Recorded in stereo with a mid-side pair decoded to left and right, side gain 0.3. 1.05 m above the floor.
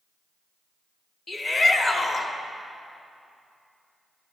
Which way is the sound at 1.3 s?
60° left.